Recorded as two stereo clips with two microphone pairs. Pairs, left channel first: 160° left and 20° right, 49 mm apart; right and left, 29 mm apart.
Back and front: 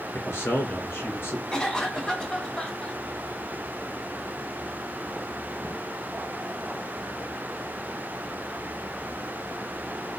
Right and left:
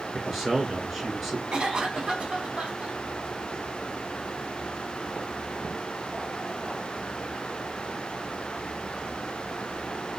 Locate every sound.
0.1 s a man speaking: 170° left, 2.5 m
1.5 s a cough: 100° left, 1.3 m